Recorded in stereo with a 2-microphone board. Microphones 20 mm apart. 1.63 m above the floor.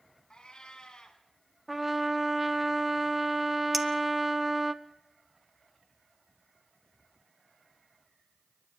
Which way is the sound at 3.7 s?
10° right (ahead or behind).